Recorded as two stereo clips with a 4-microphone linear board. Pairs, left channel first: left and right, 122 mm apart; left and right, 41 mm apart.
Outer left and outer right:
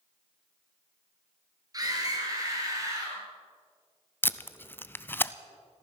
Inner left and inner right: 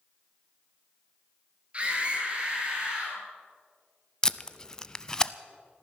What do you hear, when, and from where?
1.7 s a scream: 30° right (ahead or behind), 3 m; by 3.2 s 25° right (ahead or behind), 4 m
4.2 s tape being pulled: 15° left (ahead or behind), 0.5 m